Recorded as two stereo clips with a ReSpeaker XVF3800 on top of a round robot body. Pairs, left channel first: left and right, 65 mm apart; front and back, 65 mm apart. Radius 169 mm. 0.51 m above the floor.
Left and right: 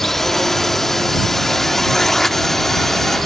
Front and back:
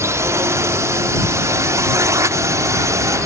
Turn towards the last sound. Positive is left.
turn(degrees=175)